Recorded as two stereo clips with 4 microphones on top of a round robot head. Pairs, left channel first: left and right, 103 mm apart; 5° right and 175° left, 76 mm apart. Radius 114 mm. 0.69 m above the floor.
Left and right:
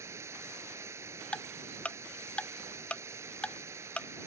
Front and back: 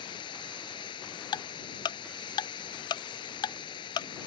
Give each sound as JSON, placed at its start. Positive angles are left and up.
{"t": 0.0, "sound": "running water", "azimuth_deg": -25}
{"t": 1.3, "sound": "ticking", "azimuth_deg": 10}